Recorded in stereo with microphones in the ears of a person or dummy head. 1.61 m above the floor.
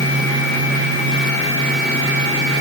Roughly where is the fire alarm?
I don't hear a fire alarm.